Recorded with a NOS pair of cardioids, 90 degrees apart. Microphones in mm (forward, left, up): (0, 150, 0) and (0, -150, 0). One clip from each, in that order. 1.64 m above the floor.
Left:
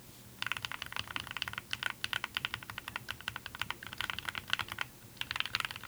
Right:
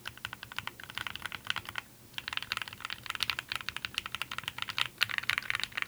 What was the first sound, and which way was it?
Only background noise.